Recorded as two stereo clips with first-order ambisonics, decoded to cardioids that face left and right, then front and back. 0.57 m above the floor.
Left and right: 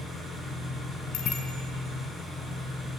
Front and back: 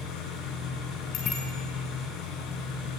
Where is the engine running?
15° left, 6 m.